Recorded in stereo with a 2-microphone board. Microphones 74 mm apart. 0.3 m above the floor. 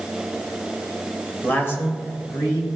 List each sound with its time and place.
1.4 s a man speaking: 20° left (ahead or behind), 1.0 m; by 2.7 s 45° left (ahead or behind), 1.9 m